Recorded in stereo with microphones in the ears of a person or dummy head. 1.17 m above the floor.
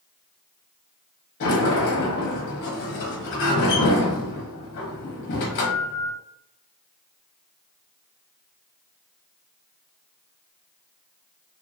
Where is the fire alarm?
No fire alarm in this recording.